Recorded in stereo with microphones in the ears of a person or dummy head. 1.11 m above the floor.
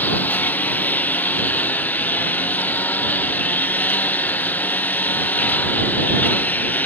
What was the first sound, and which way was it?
A lawn mower, 10° left (ahead or behind).